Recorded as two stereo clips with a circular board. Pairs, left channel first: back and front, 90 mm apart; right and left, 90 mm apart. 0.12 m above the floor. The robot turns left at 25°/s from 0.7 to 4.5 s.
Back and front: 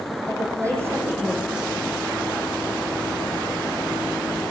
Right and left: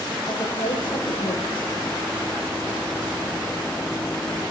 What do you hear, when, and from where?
0.3 s a woman speaking: 55° right, 6 m; by 1.7 s 80° right, 6 m